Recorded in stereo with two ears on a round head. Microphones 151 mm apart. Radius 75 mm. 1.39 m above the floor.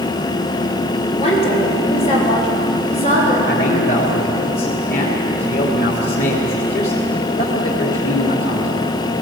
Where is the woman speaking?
40° left (ahead or behind), 5.5 m.